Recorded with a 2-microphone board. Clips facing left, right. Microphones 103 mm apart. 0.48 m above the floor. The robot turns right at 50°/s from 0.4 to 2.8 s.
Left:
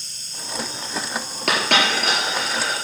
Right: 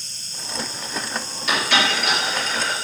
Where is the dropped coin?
70° left (ahead or behind), 4.5 m; by 2.7 s 5° left (ahead or behind), 4.5 m.